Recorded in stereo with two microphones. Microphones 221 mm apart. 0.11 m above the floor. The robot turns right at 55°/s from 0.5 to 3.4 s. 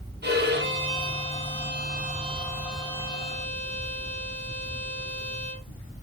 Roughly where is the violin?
Behind right.